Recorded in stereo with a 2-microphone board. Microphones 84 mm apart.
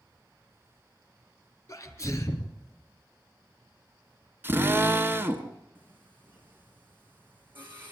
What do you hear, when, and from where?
1.7 s a sneeze: 35° left (ahead or behind), 2.5 m
4.4 s a drill: 25° right (ahead or behind), 1.3 m
5.8 s singing: 20° right (ahead or behind), 3.5 m